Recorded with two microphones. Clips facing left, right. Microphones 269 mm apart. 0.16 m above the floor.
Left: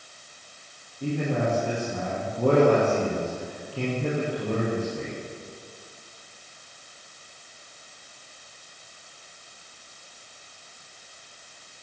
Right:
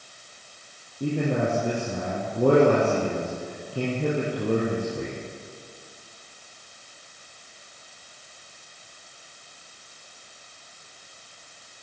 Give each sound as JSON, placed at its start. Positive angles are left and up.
{"t": 1.0, "sound": "a man speaking", "side_deg": -50, "distance_m": 4.5}